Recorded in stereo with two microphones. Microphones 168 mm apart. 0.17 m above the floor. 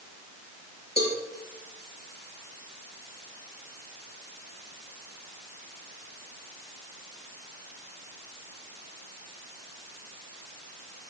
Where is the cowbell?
75° left (ahead or behind), 6 m.